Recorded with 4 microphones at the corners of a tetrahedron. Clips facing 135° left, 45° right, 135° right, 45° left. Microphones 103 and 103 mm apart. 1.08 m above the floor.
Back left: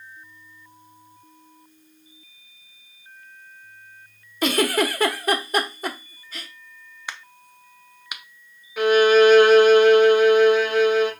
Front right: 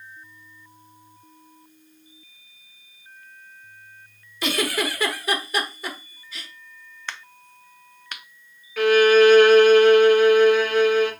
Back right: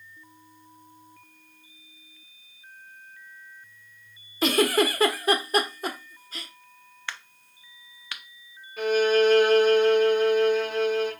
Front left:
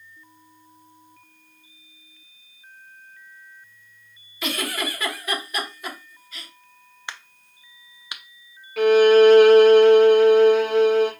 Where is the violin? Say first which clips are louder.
Even, front left 8 dB; 60° left, 0.9 m.